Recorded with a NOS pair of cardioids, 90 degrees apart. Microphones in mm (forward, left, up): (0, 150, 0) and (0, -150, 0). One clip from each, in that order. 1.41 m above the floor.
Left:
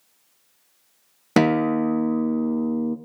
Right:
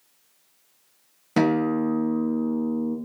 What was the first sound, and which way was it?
A guitar, 50° left.